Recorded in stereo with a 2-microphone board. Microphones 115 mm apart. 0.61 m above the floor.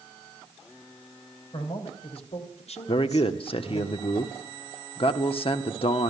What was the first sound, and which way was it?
A man speaking, 55° left (ahead or behind).